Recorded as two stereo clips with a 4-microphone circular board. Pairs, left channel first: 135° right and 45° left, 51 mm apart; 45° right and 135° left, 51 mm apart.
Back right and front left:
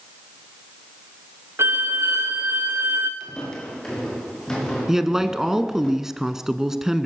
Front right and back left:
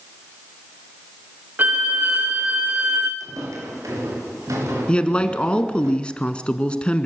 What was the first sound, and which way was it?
A violin, 80° left.